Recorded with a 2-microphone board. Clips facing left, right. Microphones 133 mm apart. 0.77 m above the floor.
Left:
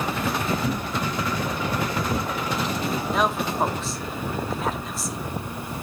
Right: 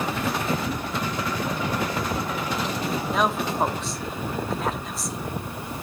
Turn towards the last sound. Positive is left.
turn(degrees=0)  # may be behind; listen again after turning